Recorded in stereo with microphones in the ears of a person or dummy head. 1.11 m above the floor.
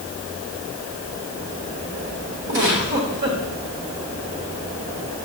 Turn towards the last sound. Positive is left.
turn(degrees=-55)  # may be behind; listen again after turning